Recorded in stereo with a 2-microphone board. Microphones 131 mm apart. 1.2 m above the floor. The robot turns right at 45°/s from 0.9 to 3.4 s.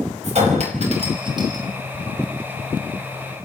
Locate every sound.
0.2 s a clink: 55° right (ahead or behind), 5 m; by 1.6 s 25° right (ahead or behind), 5 m